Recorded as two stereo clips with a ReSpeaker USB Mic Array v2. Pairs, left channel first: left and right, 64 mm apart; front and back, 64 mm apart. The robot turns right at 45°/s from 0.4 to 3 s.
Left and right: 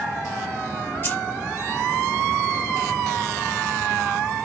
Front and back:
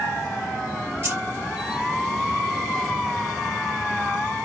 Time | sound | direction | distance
1.0 | keys jangling | 140° left | 1.9 m